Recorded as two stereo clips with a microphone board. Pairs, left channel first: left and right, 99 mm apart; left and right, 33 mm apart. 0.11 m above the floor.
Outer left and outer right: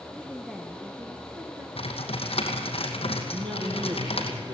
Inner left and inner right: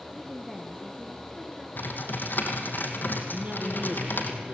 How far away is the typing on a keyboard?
About 2.5 m.